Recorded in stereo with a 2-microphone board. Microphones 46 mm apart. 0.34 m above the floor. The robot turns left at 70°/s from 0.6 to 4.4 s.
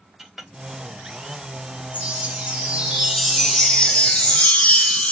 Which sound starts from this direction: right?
A chime, at 1.9 s.